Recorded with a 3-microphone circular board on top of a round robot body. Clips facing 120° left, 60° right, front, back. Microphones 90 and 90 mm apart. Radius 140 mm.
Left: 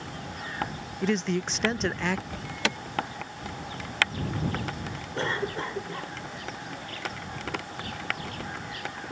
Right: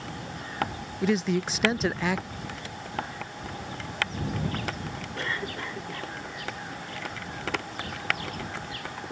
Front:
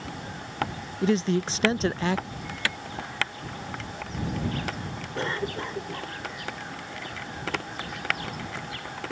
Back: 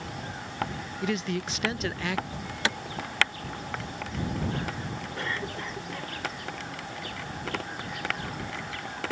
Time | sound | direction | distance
1.0 | a man speaking | 20° left | ?
2.3 | an alarm | 110° left | ?
5.2 | a cough | 60° left | ?